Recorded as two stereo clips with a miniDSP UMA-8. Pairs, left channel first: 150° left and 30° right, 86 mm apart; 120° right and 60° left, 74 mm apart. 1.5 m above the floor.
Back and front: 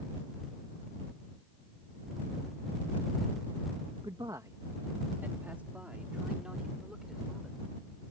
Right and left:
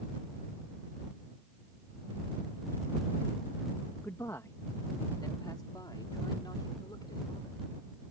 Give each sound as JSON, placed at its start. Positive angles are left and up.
{"t": 4.0, "sound": "a man speaking", "azimuth_deg": -60}